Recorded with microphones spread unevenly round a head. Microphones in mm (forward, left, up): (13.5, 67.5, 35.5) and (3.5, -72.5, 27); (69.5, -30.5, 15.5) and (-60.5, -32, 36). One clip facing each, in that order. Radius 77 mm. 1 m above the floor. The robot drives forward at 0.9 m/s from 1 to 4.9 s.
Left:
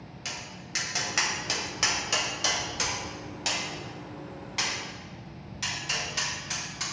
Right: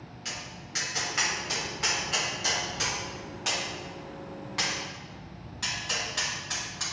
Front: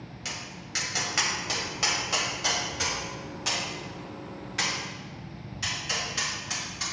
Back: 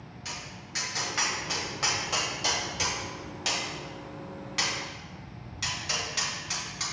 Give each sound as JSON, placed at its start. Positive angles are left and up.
{"t": 0.2, "sound": "tapping", "azimuth_deg": 50, "distance_m": 1.6}